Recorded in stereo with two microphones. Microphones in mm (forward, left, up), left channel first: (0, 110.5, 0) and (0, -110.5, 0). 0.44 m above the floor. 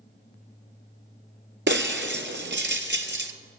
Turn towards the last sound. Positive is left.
turn(degrees=-55)  # may be behind; listen again after turning